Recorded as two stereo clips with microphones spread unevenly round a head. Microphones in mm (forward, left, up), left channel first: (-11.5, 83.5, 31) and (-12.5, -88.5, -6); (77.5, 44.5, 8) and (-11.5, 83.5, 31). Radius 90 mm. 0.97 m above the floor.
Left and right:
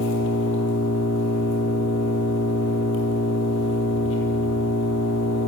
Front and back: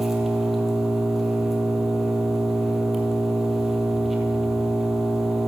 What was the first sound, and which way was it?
An engine running, 70° left.